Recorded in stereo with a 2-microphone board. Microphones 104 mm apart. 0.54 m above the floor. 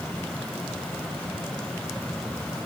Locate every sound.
Only background noise.